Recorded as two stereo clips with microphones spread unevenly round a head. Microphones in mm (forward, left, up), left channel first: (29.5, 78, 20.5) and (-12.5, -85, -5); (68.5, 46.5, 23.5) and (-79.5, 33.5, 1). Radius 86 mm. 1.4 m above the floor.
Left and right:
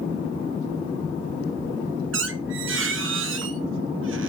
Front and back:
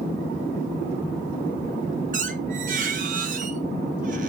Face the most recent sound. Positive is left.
turn(degrees=-125)